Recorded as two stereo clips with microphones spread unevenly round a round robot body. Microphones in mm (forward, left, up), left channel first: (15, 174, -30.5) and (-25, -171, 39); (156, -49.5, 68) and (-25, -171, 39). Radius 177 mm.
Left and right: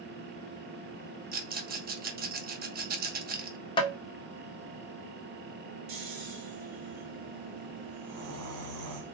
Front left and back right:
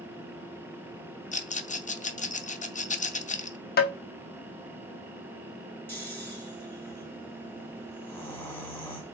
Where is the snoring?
50° right, 1.9 m.